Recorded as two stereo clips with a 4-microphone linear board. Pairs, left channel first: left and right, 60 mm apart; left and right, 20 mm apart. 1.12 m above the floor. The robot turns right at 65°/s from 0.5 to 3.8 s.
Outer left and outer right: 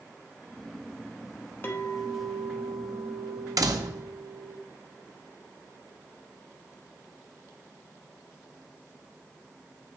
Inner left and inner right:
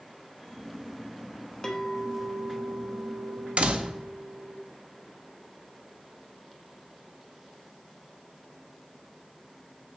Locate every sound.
1.6 s a clink: 145° left, 0.8 m; by 4.6 s 75° right, 0.8 m
3.6 s a door slam: 70° right (ahead or behind), 0.7 m; by 4.0 s 80° right, 0.7 m